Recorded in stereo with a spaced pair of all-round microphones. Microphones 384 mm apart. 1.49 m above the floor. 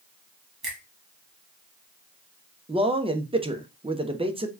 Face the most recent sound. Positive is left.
turn(degrees=-15)  # may be behind; listen again after turning